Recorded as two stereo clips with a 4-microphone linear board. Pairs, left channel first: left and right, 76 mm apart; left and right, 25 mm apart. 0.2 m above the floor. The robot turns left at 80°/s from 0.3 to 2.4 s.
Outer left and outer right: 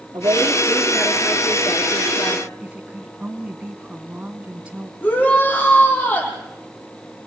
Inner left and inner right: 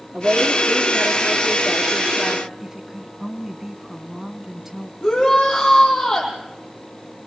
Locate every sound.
0.1 s a woman speaking: 115° right, 4.5 m; by 2.5 s 80° left, 4.5 m
2.6 s a woman speaking: 15° right (ahead or behind), 2.5 m
5.0 s a shout: 25° left (ahead or behind), 8.5 m